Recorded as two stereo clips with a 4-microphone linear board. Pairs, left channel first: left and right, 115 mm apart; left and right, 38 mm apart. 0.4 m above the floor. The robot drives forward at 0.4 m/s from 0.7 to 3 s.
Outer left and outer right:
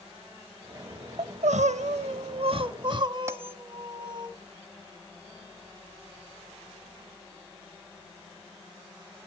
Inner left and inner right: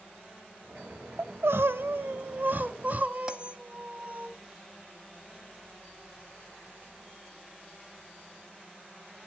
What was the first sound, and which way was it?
Crying, 75° right (ahead or behind).